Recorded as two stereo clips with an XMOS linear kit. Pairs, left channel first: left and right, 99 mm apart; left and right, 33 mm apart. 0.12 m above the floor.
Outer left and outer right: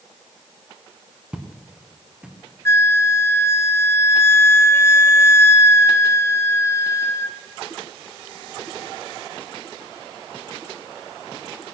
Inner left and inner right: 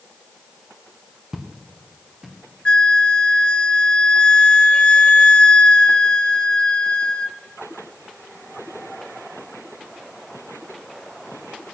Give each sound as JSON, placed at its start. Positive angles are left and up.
{"t": 1.3, "sound": "footsteps", "side_deg": -10, "distance_m": 3.0}
{"t": 2.6, "sound": "a flute", "side_deg": 25, "distance_m": 0.8}